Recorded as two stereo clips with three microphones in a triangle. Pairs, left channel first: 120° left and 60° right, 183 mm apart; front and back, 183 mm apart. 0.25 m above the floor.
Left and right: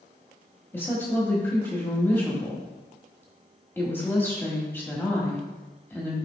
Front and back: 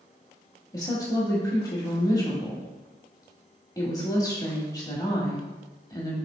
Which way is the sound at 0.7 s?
50° left.